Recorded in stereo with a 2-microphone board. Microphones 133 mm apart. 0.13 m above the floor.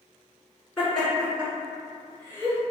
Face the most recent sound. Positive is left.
turn(degrees=-40)  # may be behind; listen again after turning